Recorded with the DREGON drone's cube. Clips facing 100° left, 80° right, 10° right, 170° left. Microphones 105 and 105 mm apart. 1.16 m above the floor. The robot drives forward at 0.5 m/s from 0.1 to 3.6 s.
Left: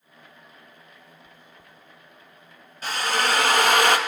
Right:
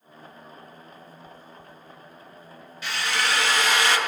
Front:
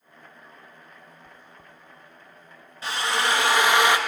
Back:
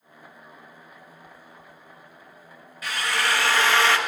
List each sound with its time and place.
1.2 s chewing: 20° left, 1.5 m; by 1.7 s 25° left, 1.3 m
2.8 s a drill: 50° left, 1.9 m; by 4.0 s 60° left, 1.7 m